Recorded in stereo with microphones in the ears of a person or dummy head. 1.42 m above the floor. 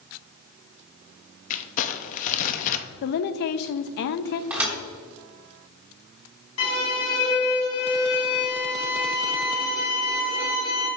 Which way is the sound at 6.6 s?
85° left.